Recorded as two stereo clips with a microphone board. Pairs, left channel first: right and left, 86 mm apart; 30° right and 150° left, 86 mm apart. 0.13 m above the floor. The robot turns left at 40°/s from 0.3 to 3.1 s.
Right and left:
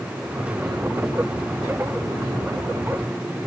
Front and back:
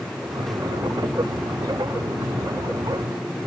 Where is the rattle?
I don't hear a rattle.